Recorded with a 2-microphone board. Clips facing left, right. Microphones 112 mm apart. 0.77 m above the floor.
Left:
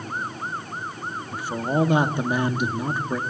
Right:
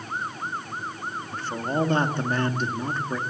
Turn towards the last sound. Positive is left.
turn(degrees=10)  # may be behind; listen again after turning